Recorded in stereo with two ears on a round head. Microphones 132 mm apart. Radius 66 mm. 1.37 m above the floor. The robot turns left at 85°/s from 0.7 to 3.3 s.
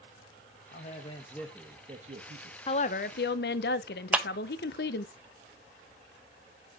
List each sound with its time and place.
0.7 s a man speaking: 65° left, 1.1 m; by 2.6 s 90° right, 1.1 m
2.7 s a woman speaking: 145° left, 0.7 m; by 5.1 s 90° left, 0.7 m
4.1 s a clap: 10° right (ahead or behind), 0.7 m